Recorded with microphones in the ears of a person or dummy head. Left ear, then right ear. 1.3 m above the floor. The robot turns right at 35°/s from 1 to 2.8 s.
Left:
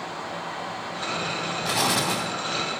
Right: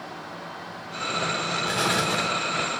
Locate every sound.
1.6 s an explosion: 70° left (ahead or behind), 3.5 m